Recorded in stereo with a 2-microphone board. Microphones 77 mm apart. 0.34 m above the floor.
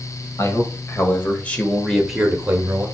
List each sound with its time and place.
0.4 s a man speaking: 40° left (ahead or behind), 2 m; by 2.9 s 25° right (ahead or behind), 1.6 m